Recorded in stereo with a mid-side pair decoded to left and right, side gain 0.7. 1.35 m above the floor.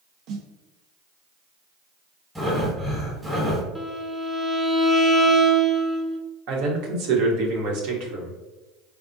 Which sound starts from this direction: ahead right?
A snare drum, at 0.3 s.